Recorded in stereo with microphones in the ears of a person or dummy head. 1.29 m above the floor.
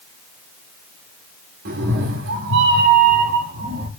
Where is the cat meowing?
45° right (ahead or behind), 1.2 m; by 3.9 s 40° right (ahead or behind), 1.9 m.